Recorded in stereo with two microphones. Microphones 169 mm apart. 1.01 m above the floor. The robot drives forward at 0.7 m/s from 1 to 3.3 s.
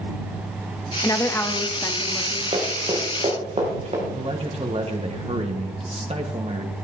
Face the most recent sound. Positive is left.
turn(degrees=-35)  # may be behind; listen again after turning